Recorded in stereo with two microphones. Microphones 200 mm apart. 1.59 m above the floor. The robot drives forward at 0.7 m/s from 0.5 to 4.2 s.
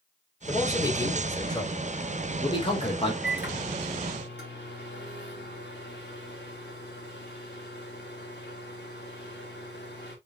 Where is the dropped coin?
I don't hear a dropped coin.